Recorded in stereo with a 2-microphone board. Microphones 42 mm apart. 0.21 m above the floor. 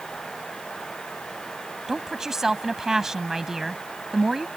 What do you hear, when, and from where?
1.9 s a woman speaking: 10° right (ahead or behind)